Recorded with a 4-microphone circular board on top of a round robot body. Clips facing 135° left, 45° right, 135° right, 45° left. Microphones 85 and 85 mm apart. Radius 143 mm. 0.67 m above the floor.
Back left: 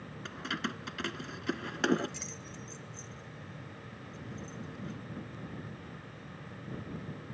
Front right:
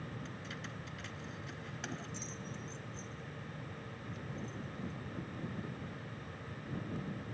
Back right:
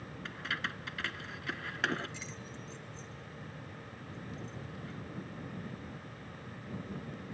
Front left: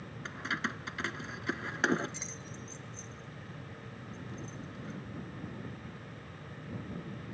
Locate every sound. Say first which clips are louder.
0.2 s keys jangling: back left 8 dB, front left 3 dB; 115° left